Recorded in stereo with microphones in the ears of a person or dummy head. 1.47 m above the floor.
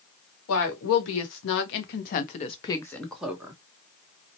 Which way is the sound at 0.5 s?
75° left (ahead or behind).